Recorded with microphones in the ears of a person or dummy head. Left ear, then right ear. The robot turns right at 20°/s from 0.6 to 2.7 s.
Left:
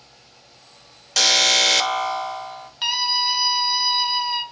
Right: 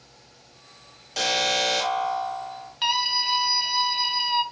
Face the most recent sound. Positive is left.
turn(degrees=10)  # may be behind; listen again after turning